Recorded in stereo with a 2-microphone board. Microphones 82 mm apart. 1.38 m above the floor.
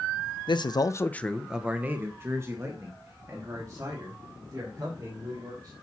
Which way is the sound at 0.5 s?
70° left (ahead or behind).